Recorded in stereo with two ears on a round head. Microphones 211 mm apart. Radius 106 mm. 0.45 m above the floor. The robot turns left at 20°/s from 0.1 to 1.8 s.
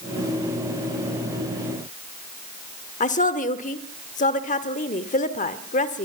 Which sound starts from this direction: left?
A woman speaking, at 3.0 s.